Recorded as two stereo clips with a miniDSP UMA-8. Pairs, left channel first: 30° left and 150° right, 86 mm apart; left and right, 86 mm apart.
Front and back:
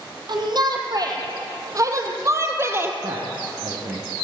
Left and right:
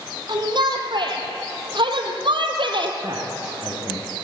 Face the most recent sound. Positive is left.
turn(degrees=-145)